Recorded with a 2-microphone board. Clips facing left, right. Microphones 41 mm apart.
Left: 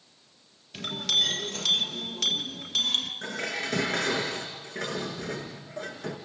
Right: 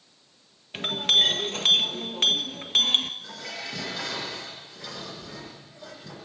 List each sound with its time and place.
0.7 s a clink: 40° right (ahead or behind), 1.7 m
3.2 s dishes clattering: 75° left (ahead or behind), 5 m